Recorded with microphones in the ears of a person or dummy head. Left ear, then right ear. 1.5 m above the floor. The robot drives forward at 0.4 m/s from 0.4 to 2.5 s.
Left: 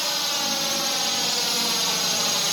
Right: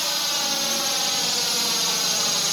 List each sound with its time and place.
0.0 s a drone: 5° left (ahead or behind); by 2.5 s 15° left (ahead or behind)